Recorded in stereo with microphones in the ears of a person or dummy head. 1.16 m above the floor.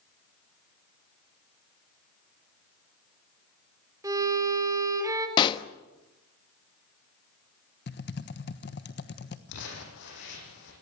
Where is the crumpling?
70° left (ahead or behind), 8.5 m.